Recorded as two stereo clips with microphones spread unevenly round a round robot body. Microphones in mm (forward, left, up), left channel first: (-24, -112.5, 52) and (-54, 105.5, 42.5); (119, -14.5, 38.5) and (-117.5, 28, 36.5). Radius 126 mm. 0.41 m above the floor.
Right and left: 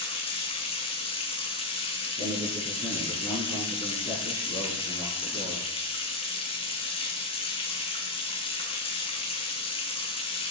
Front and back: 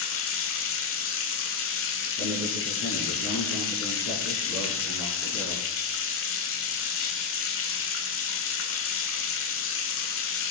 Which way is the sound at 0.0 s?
20° right.